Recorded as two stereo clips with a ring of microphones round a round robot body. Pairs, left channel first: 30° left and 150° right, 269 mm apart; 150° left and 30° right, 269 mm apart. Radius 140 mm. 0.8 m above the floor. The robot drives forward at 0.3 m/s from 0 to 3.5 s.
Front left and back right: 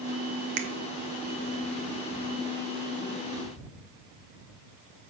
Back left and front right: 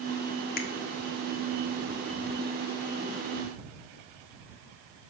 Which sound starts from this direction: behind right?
A finger snap, at 0.6 s.